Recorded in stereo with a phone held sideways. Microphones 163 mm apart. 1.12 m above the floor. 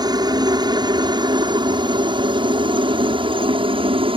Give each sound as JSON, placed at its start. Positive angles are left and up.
{"t": 0.0, "sound": "a helicopter", "side_deg": -25}